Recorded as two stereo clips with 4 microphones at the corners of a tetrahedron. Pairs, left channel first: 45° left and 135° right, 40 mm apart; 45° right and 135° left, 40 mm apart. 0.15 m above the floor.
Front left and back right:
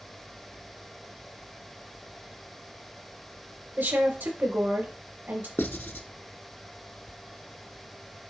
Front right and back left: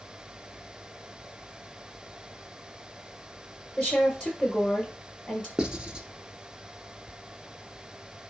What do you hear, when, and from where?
3.8 s a woman speaking: 105° right, 3.5 m
5.6 s writing: 70° left, 0.9 m